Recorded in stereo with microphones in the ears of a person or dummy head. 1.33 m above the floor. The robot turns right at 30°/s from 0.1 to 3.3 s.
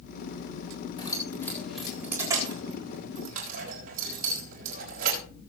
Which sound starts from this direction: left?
Keys jangling, at 1.0 s.